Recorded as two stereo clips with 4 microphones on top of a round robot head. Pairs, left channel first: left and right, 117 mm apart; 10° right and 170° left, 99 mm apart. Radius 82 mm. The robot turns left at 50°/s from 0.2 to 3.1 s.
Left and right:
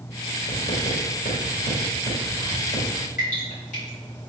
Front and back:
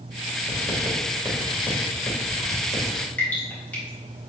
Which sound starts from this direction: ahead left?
Dripping, at 3.2 s.